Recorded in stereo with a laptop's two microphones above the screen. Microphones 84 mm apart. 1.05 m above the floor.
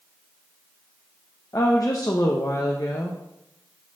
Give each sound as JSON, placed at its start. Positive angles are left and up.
{"t": 1.5, "sound": "a woman speaking", "side_deg": 45, "distance_m": 0.7}